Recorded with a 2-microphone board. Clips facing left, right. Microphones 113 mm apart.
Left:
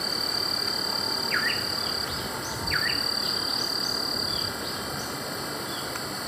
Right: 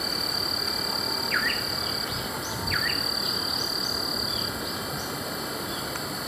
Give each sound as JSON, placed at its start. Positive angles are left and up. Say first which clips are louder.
{"t": 0.0, "sound": "an insect", "louder": "right 1 dB", "side_deg": 0}